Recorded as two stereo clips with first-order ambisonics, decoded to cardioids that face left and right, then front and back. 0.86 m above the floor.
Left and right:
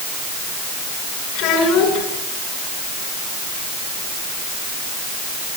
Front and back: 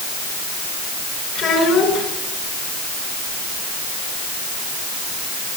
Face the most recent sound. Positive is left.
turn(degrees=50)